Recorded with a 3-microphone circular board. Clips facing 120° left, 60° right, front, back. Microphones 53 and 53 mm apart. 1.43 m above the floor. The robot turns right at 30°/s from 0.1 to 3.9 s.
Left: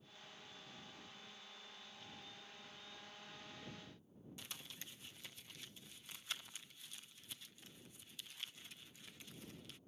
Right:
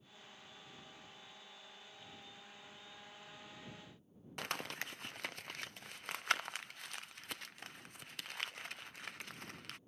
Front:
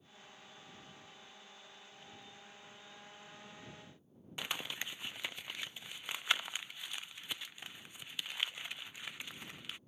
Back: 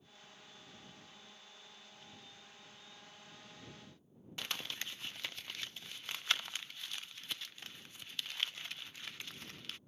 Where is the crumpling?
75° right.